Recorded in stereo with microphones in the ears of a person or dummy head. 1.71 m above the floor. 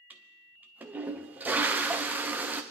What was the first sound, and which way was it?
A toilet flushing, 15° right (ahead or behind).